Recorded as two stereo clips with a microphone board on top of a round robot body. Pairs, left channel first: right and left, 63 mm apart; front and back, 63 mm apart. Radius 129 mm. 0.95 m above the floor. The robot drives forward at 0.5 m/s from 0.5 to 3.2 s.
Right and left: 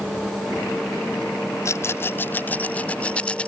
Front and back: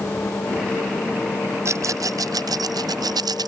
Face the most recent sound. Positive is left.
turn(degrees=-160)